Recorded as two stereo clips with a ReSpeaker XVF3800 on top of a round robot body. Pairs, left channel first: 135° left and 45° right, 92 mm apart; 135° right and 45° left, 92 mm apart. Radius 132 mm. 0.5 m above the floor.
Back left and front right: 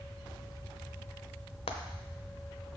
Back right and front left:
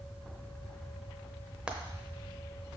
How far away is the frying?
About 0.9 m.